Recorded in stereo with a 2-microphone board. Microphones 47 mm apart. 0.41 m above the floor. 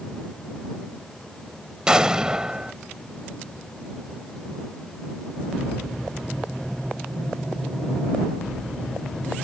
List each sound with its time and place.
1.9 s an explosion: 20° right (ahead or behind)